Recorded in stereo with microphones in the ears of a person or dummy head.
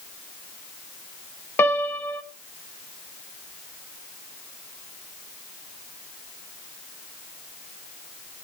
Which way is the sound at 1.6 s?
10° left (ahead or behind).